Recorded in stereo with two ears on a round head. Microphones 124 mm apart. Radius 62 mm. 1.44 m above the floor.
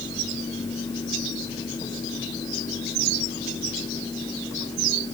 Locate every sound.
Only background noise.